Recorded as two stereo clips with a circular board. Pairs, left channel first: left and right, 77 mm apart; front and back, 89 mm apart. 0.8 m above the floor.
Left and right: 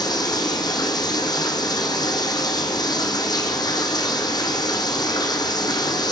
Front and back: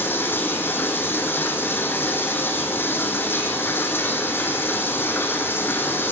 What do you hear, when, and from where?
0.0 s running water: 65° left, 3 m